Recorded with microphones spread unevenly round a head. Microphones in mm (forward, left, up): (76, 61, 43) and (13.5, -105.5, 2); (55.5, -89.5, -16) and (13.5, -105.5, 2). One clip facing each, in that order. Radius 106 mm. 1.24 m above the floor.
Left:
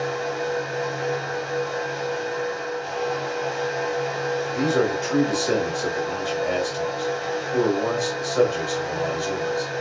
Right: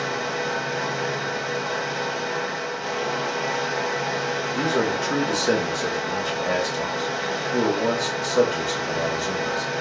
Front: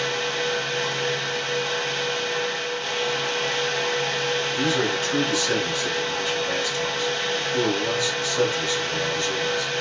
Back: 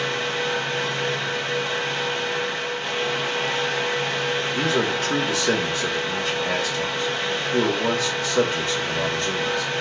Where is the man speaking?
175° right, 1.7 m.